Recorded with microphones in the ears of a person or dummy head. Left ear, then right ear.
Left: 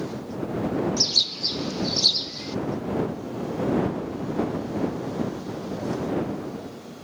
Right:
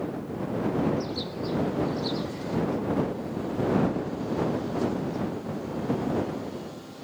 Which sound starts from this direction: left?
A bird, at 1.0 s.